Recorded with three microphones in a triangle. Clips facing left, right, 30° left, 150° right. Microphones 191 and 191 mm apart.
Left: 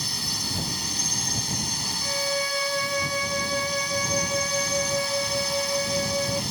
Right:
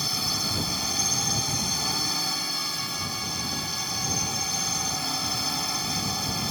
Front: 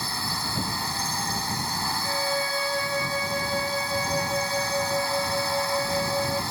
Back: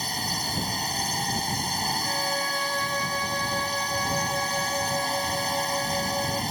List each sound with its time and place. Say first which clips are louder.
0.0 s a drone: right 2 dB, back 1 dB; 85° right
2.0 s a violin: left 7 dB, front 2 dB; 100° left